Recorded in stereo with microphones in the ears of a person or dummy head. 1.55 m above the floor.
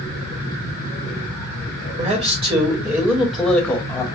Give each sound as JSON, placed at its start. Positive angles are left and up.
{"t": 2.0, "sound": "a man speaking", "side_deg": -35, "distance_m": 1.2}